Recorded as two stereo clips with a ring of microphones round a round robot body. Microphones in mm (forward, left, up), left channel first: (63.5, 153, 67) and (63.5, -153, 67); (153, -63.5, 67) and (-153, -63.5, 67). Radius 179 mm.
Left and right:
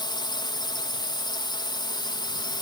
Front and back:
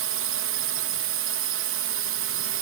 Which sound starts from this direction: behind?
A drone, at 0.0 s.